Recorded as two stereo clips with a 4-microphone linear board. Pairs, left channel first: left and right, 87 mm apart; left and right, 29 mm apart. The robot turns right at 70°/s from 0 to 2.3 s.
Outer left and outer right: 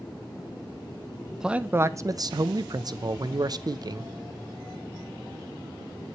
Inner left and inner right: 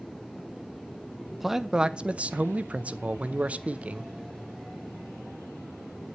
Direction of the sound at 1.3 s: Straight behind.